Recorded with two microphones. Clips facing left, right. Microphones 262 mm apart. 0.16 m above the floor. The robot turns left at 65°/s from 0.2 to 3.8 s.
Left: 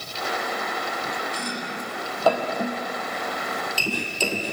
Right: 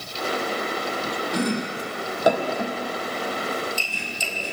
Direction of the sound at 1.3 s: 75° right (ahead or behind).